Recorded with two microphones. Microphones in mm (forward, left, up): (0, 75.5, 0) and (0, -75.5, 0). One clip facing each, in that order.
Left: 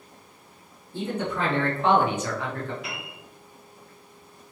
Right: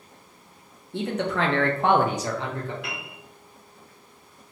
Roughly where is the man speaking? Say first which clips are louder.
Right 2 dB; right.